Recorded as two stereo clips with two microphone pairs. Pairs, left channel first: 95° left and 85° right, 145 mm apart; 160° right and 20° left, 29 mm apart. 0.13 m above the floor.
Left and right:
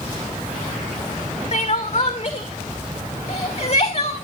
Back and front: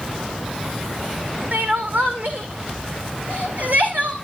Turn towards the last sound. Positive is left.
turn(degrees=55)